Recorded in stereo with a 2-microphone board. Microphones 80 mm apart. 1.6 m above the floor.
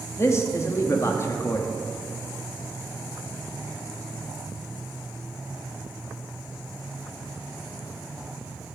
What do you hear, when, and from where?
0.2 s a man speaking: 35° left (ahead or behind), 0.7 m